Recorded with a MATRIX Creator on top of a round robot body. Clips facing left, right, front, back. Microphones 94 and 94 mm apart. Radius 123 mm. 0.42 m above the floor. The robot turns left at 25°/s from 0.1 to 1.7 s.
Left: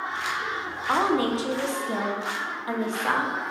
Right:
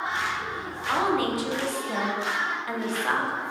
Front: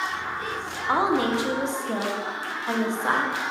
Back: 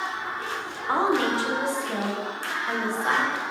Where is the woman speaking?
65° left, 1.2 m; by 3.4 s 45° left, 1.2 m.